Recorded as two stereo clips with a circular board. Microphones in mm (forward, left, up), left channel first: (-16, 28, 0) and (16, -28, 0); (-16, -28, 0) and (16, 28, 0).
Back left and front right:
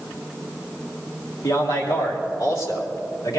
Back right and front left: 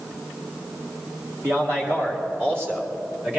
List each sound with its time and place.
1.4 s a man speaking: 110° left, 2.5 m; by 3.4 s 115° left, 3.5 m